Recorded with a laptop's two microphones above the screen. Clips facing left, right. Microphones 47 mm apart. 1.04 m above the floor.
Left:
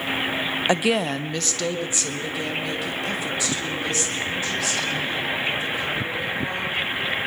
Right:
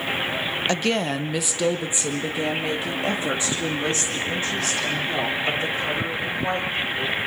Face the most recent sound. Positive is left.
turn(degrees=-35)  # may be behind; listen again after turning